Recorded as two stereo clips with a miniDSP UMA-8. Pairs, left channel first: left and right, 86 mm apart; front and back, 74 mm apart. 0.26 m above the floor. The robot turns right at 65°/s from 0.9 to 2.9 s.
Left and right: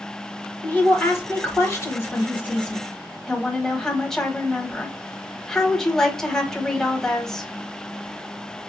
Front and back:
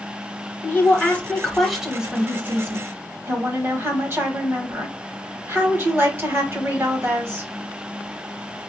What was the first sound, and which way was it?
A woman speaking, 40° left.